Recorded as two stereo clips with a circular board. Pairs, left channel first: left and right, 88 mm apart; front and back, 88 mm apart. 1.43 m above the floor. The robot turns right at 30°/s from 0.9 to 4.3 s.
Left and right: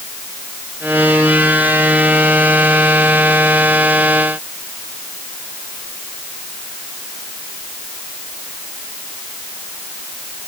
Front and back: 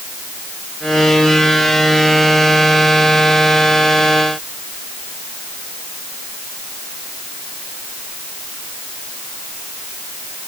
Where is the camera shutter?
No camera shutter in this recording.